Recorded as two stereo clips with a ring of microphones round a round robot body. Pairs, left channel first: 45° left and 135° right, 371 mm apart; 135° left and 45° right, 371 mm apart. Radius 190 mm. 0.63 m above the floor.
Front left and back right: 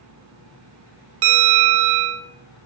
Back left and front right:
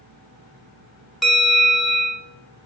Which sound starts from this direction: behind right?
A bell, at 1.2 s.